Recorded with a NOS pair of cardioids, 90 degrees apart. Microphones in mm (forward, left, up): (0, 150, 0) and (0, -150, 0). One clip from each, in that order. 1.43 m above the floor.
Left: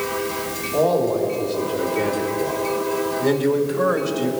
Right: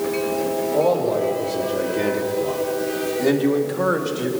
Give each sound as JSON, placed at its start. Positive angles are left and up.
{"t": 0.7, "sound": "a man speaking", "azimuth_deg": -30, "distance_m": 4.5}